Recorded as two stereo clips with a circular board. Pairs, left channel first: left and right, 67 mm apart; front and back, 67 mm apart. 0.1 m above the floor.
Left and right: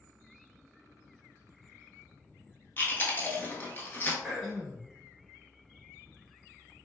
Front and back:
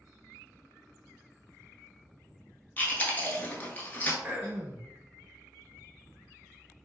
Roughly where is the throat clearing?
Behind.